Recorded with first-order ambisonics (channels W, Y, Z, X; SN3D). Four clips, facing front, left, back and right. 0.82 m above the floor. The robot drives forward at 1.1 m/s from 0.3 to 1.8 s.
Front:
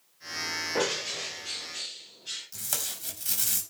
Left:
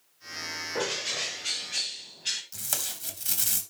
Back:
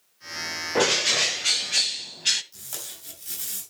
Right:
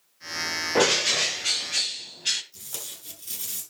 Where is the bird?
115° right, 0.6 m; by 2.4 s 165° right, 1.4 m.